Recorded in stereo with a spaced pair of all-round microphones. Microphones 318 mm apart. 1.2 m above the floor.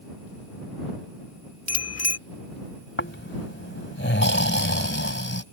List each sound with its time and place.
1.7 s a bicycle bell: 50° left (ahead or behind)
3.0 s snoring: 35° left (ahead or behind)